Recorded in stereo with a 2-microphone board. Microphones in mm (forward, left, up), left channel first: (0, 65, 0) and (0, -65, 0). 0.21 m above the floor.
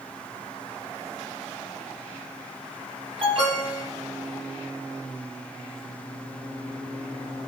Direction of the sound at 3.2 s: 45° right (ahead or behind).